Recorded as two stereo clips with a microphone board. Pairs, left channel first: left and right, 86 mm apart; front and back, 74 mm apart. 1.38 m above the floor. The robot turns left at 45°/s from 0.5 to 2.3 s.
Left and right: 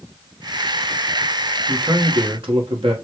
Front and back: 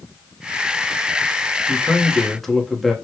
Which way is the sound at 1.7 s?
60° right.